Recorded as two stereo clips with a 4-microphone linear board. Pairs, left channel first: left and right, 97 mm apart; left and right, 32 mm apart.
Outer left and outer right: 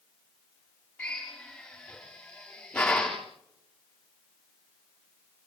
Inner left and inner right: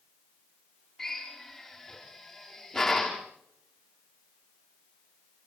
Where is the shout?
I don't hear a shout.